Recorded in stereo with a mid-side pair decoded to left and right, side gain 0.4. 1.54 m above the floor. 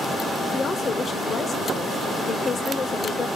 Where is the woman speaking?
50° left, 0.9 m.